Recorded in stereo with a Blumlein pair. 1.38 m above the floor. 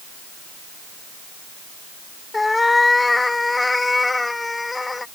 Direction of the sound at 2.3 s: 10° left.